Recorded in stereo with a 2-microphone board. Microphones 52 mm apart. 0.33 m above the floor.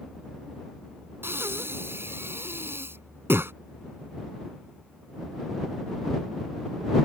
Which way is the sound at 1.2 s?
55° right (ahead or behind).